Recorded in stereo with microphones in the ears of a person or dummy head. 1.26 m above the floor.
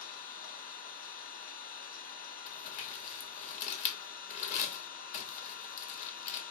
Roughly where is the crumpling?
Left.